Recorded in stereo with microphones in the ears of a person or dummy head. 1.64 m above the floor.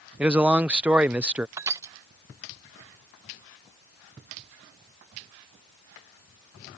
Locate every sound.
0.2 s a man speaking: 5° right (ahead or behind)
1.6 s crushing: 15° right (ahead or behind)